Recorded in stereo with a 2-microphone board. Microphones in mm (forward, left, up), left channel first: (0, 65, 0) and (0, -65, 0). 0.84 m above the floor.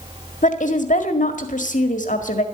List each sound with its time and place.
0.4 s a woman speaking: 70° left (ahead or behind), 1.7 m